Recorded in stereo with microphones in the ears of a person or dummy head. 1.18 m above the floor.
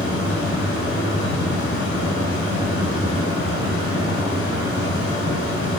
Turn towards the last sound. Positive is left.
turn(degrees=75)  # may be behind; listen again after turning